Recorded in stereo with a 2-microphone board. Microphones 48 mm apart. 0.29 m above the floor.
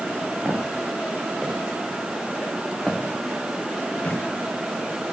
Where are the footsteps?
25° right (ahead or behind), 4.5 m; by 4.2 s 30° left (ahead or behind), 4 m.